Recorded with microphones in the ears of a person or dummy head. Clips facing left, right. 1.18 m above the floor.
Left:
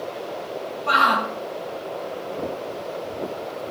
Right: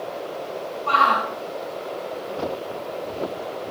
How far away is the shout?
About 1.1 m.